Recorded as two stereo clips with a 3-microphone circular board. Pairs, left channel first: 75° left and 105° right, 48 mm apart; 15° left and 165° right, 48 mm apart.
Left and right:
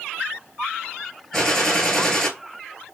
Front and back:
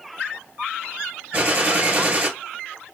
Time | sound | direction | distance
1.3 | a gunshot | 150° left | 1.0 m